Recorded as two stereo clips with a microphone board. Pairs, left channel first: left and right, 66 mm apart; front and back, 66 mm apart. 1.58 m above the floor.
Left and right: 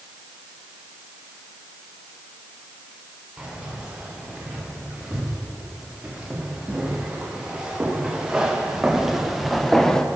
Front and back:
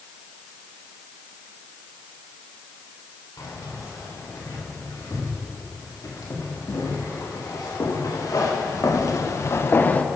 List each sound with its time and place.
3.4 s keys jangling: 15° right, 4 m; by 10.1 s 20° left, 0.6 m